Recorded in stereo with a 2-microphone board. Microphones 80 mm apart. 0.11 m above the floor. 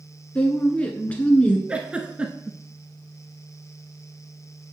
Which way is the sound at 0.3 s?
15° left (ahead or behind).